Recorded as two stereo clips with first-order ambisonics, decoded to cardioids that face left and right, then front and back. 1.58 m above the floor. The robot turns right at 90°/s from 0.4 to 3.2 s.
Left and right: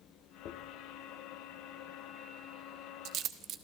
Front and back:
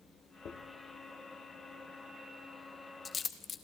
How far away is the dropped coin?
About 1.4 m.